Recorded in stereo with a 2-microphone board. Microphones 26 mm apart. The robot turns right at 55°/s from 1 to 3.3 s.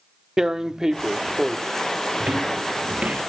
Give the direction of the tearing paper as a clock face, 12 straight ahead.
1 o'clock.